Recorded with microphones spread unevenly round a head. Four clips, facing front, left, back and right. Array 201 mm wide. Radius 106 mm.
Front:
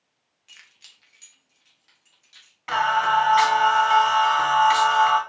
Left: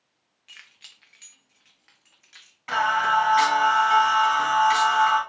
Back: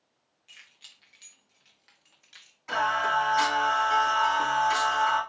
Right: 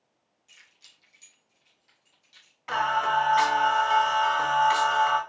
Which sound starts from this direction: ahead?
Singing, at 2.7 s.